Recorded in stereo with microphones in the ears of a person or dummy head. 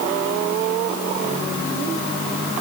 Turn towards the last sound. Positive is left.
No sound to turn to.